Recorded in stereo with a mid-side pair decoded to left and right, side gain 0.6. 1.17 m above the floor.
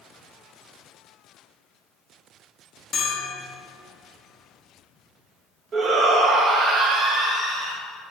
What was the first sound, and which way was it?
A bell, 40° left.